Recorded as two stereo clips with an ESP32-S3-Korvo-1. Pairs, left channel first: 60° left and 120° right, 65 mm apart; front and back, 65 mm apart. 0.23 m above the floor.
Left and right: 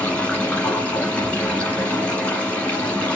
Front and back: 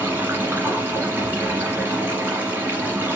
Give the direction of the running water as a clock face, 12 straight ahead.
8 o'clock.